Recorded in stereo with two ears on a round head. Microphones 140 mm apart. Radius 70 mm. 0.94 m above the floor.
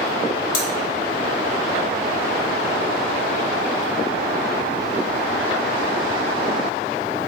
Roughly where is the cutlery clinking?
Left.